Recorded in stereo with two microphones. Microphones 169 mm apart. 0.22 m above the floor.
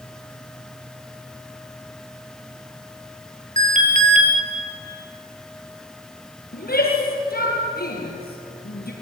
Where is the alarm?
50° right (ahead or behind), 3.5 m.